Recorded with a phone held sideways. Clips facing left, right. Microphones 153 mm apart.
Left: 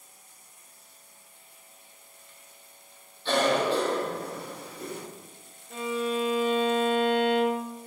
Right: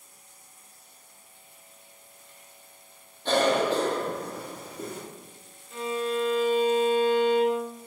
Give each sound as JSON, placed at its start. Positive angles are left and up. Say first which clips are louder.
{"t": 3.2, "sound": "a cough", "louder": "right 1 dB", "side_deg": -45, "distance_m": 1.4}
{"t": 5.7, "sound": "a violin", "louder": "even", "side_deg": 60, "distance_m": 0.8}